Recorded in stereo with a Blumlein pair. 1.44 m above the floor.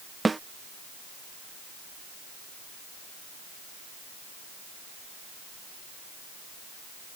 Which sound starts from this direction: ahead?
A snare drum, at 0.2 s.